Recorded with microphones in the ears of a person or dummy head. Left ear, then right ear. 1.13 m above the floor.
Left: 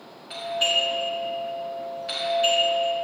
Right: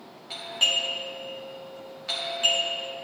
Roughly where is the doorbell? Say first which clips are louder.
Left 1 dB; centre.